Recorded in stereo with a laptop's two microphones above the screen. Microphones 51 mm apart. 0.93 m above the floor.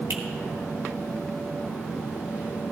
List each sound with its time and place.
0.1 s a finger snap: 60° right (ahead or behind), 1.6 m